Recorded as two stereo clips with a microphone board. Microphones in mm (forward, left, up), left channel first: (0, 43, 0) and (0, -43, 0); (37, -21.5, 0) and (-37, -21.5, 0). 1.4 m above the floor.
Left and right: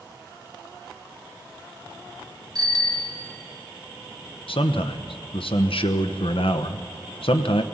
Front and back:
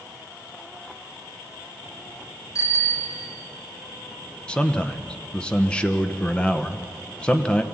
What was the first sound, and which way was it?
A bicycle bell, 50° right.